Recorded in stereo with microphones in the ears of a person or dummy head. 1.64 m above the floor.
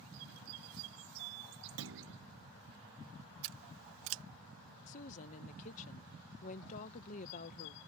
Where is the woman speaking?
40° left (ahead or behind).